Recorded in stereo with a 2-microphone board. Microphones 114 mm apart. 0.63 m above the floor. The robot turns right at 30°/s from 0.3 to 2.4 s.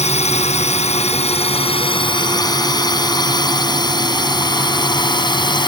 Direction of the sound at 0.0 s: 75° left (ahead or behind).